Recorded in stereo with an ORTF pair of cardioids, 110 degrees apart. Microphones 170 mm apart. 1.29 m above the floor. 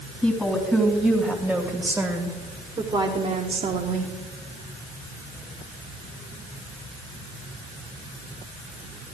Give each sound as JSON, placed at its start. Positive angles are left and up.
{"t": 0.2, "sound": "a woman speaking", "azimuth_deg": 10, "distance_m": 2.0}